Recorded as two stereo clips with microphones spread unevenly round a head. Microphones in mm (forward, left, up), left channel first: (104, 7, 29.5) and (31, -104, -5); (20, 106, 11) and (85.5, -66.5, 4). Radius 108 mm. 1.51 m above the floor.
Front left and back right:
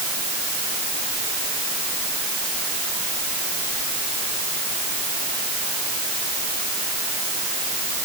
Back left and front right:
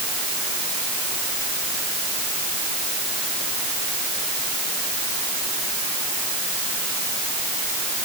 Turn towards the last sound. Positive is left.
No sound to turn to.